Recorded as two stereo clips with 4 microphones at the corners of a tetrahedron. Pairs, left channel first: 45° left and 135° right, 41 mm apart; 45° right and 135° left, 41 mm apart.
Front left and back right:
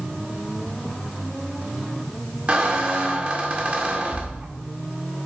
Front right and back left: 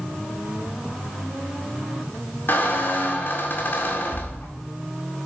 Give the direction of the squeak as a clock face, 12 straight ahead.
3 o'clock.